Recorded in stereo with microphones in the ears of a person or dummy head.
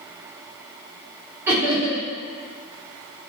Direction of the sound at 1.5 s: 15° right (ahead or behind).